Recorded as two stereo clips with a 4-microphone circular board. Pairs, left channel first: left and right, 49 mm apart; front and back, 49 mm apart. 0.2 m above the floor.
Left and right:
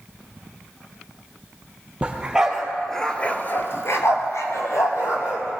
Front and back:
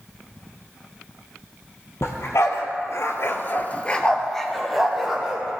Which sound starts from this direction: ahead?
A dog barking, at 2.0 s.